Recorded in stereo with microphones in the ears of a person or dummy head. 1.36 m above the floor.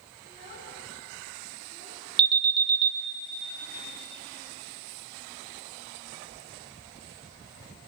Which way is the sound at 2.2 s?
30° right (ahead or behind).